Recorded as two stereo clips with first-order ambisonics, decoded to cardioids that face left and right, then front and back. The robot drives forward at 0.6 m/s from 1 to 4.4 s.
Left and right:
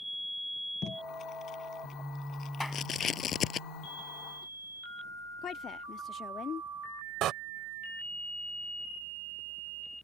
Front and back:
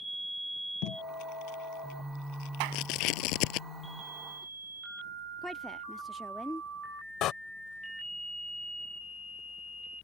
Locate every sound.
0.8 s tape being pulled: 25° left; by 3.6 s 30° left
2.6 s a clap: 175° left
5.4 s a woman speaking: 90° left
7.2 s a door slam: 45° right